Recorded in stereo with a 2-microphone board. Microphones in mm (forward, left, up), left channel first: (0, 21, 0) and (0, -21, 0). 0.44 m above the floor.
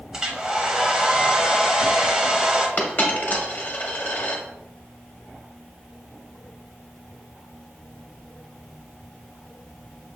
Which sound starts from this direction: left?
A dropped coin, at 2.8 s.